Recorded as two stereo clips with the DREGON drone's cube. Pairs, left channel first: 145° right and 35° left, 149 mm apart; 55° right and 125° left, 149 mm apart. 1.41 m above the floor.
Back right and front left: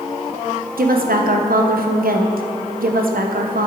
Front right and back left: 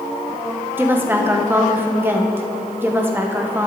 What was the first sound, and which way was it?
A woman speaking, 50° left.